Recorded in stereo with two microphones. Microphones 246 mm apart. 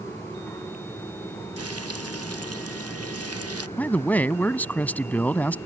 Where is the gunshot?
I don't hear a gunshot.